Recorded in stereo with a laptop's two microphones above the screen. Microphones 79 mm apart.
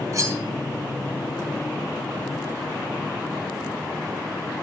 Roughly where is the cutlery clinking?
Right.